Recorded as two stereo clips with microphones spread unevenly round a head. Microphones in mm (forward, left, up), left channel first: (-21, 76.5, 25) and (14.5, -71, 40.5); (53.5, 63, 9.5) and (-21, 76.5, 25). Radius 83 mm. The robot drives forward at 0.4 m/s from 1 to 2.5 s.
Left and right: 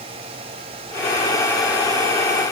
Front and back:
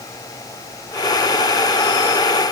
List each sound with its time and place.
Only background noise.